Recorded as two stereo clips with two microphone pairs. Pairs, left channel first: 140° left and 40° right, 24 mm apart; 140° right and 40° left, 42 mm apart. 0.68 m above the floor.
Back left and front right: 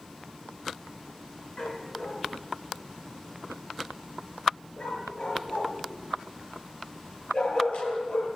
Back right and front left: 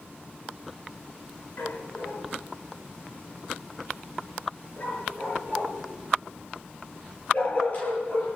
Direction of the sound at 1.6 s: 175° right.